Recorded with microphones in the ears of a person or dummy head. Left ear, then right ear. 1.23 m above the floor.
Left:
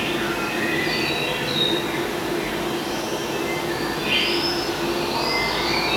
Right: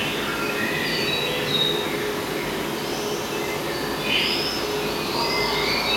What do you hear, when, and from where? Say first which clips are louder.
0.0 s an insect: left 1 dB; 10° right (ahead or behind), 1.5 m